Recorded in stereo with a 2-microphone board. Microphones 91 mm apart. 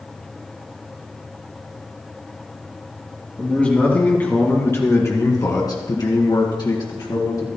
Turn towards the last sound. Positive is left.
turn(degrees=55)  # may be behind; listen again after turning